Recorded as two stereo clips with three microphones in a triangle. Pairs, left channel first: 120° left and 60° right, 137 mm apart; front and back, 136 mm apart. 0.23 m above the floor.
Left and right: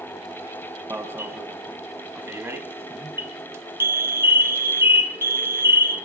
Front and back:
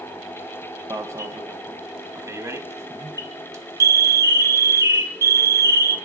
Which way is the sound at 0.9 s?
120° right.